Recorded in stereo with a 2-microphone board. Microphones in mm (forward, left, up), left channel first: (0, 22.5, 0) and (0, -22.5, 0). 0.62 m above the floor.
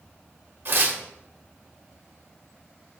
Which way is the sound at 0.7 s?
55° right (ahead or behind).